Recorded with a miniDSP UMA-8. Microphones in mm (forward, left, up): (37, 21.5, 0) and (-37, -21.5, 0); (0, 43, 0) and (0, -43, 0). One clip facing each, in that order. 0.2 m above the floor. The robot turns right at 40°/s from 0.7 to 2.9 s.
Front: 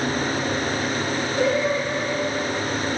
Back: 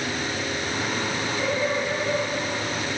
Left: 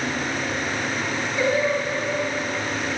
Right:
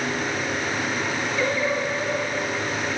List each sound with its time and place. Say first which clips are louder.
1.4 s singing: front 5 dB, left 4 dB; 15° left, 3.5 m; by 2.2 s 50° left, 3.5 m